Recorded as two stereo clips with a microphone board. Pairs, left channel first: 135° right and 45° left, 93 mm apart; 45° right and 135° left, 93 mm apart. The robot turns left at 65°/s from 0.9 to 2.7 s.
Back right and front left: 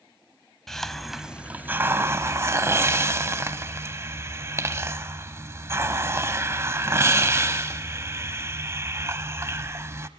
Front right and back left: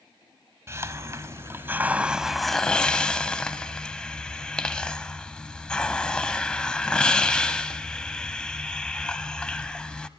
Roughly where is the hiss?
Behind left.